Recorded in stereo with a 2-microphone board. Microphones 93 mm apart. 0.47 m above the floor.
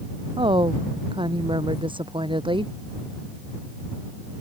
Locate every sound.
0.4 s a woman speaking: 60° right (ahead or behind)